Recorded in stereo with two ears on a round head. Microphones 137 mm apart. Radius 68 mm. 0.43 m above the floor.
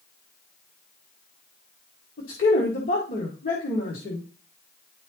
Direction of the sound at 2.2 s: 60° left (ahead or behind).